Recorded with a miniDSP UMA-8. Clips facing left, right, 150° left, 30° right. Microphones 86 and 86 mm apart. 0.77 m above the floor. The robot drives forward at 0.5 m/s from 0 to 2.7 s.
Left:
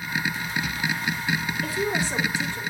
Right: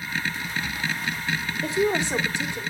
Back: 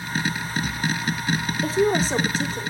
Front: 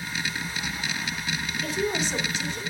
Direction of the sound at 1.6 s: 155° right.